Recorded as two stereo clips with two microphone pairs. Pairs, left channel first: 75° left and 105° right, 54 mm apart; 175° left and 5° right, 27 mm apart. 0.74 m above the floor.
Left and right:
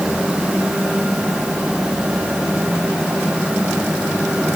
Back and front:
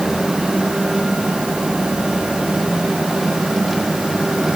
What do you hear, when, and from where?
Only background noise.